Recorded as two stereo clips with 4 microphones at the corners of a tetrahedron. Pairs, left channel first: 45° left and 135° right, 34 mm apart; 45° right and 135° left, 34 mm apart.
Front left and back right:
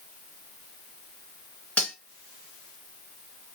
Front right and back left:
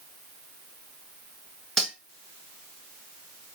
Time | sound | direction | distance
1.8 | cutlery clinking | 35° left | 1.4 m